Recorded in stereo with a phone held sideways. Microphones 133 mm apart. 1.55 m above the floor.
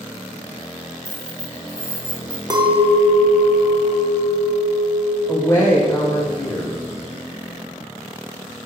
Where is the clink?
30° right (ahead or behind), 0.6 m.